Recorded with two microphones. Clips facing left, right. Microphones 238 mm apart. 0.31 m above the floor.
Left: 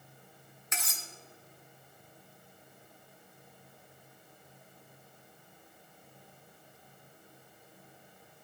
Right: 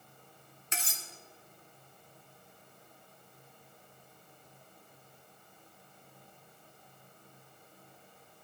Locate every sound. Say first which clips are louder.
0.7 s cutlery clinking: right 1 dB; 30° right (ahead or behind), 1.1 m